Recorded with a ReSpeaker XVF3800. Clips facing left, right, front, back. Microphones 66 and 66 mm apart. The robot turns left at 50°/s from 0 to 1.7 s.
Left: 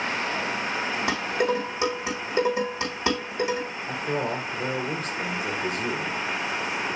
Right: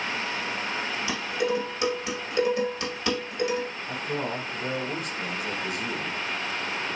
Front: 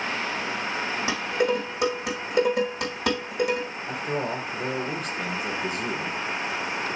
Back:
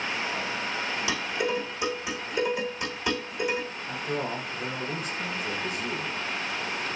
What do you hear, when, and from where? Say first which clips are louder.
1.1 s dishes clattering: left 2 dB, front 5 dB; 60° left, 4.5 m; by 3.7 s 30° left, 4.5 m
3.9 s a man speaking: left 5 dB, front 2 dB; 40° left, 3.5 m